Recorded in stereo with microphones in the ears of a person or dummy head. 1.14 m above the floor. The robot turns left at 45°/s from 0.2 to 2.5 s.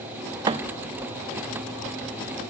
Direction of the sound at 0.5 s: 30° right (ahead or behind).